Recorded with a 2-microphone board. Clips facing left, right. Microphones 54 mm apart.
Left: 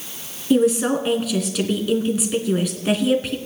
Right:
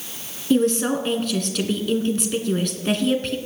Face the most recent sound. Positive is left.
turn(degrees=10)  # may be behind; listen again after turning